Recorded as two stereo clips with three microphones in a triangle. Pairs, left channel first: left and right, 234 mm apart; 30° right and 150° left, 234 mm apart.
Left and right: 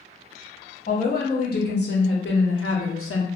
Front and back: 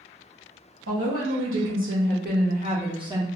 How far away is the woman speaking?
About 1.3 m.